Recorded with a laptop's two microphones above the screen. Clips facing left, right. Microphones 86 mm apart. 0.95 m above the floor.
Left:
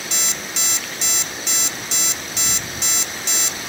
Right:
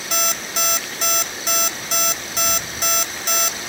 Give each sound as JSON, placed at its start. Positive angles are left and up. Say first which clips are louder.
{"t": 0.1, "sound": "an alarm clock", "louder": "right 10 dB", "side_deg": -50, "distance_m": 1.0}